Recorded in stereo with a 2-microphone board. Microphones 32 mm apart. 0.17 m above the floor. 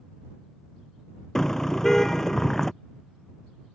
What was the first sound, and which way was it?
A car horn, 15° left (ahead or behind).